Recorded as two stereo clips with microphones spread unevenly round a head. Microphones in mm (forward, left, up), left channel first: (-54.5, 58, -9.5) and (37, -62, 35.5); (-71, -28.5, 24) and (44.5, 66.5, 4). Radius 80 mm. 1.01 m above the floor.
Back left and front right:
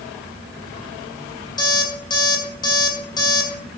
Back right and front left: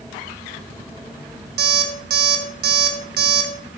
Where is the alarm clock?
60° left, 2.5 m.